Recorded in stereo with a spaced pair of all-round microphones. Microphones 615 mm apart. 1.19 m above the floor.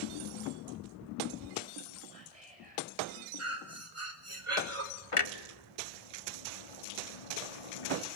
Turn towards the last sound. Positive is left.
turn(degrees=55)  # may be behind; listen again after turning